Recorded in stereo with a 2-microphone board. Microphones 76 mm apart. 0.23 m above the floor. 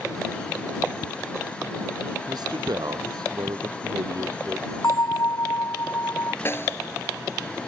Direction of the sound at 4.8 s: 50° left (ahead or behind).